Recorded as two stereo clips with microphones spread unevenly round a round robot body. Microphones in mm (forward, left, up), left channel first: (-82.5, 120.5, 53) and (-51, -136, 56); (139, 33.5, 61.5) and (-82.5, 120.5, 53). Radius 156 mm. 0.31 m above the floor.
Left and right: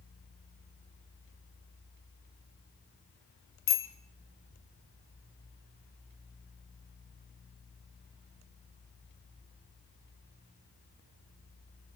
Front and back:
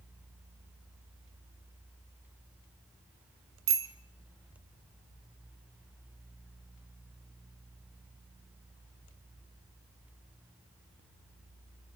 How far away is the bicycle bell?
About 2.5 m.